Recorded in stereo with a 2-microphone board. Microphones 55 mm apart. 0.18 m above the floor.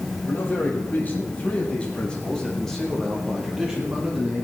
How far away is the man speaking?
About 5 m.